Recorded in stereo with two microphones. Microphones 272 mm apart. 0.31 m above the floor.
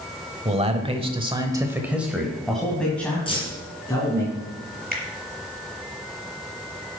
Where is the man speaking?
25° right (ahead or behind), 1.2 m; by 4.3 s 10° left (ahead or behind), 3 m.